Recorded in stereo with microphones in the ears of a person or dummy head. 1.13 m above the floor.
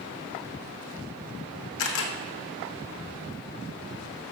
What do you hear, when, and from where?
1.8 s a camera shutter: 70° left (ahead or behind), 1.3 m